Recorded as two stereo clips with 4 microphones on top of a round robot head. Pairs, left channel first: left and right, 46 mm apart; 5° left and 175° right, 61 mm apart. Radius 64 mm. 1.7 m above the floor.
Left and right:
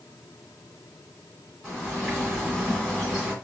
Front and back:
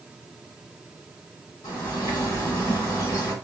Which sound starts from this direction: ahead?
A bird, at 1.6 s.